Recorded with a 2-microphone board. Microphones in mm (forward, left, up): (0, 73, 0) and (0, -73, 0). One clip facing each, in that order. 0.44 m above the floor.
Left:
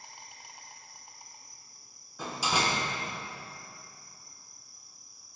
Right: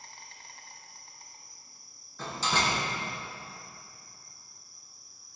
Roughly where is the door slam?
Centre.